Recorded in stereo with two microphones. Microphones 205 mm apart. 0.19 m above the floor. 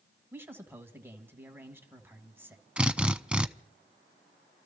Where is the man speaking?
10° right (ahead or behind), 1.6 m.